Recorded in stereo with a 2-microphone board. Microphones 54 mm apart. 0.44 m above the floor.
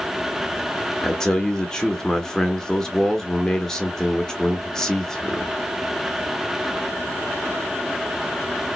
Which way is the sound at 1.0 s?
15° left (ahead or behind).